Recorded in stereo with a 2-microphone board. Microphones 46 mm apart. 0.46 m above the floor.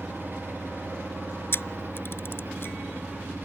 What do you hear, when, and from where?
0.0 s an engine running: 50° right (ahead or behind)
1.5 s a camera shutter: 55° left (ahead or behind)